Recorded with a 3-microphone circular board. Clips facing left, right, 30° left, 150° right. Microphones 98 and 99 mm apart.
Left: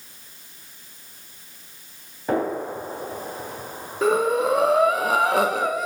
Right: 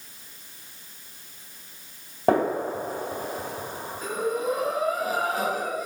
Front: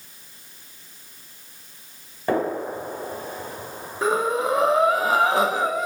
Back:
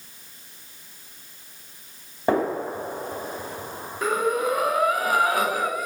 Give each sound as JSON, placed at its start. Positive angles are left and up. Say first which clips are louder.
{"t": 2.3, "sound": "a gunshot", "louder": "right 2 dB, back 1 dB", "azimuth_deg": -80, "distance_m": 2.5}
{"t": 4.0, "sound": "breathing", "louder": "left 8 dB, front 1 dB", "azimuth_deg": 95, "distance_m": 0.5}